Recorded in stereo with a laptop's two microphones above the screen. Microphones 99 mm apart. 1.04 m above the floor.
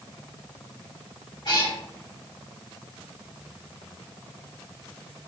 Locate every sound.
1.4 s a cat meowing: 50° left (ahead or behind), 3 m